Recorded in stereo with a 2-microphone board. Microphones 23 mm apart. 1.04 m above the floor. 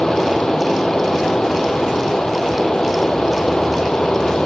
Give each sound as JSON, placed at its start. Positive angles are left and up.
{"t": 0.0, "sound": "running water", "side_deg": 40}